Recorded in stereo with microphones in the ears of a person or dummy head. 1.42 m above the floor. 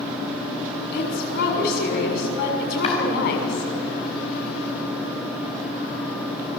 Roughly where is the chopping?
Left.